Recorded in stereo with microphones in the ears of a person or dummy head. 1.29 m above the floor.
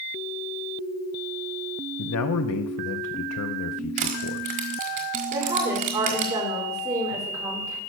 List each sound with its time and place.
2.0 s a man speaking: 80° left, 0.6 m
4.0 s crushing: 45° right (ahead or behind), 1.5 m
5.3 s a woman speaking: 20° right (ahead or behind), 4 m